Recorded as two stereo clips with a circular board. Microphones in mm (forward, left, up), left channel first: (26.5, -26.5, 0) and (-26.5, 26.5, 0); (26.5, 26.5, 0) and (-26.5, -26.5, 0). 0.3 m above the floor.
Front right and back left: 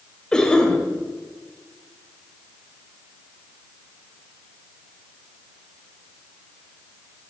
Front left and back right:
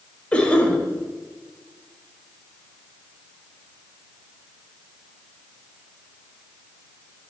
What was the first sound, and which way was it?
A cough, 10° left.